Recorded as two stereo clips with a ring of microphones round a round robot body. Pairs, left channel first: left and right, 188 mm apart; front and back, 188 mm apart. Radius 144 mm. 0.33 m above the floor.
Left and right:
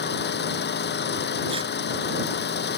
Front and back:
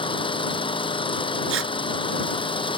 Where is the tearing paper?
160° right.